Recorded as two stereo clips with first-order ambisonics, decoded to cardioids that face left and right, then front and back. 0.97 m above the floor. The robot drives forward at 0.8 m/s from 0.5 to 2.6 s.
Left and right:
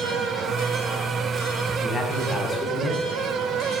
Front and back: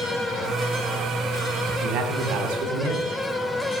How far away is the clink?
I don't hear a clink.